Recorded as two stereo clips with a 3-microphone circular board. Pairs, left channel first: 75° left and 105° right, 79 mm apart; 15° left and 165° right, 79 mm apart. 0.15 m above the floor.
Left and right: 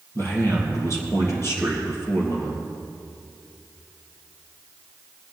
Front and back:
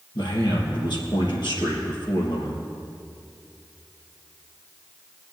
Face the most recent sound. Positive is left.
turn(degrees=25)